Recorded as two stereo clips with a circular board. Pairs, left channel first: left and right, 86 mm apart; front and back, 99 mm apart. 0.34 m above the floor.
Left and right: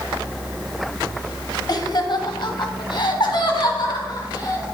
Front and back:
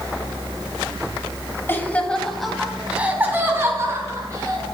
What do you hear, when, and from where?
1.7 s laughter: 65° left, 1.5 m; by 4.7 s 125° left, 3 m